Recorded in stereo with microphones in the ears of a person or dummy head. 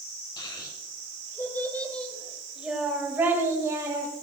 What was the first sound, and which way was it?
A child speaking, 25° left (ahead or behind).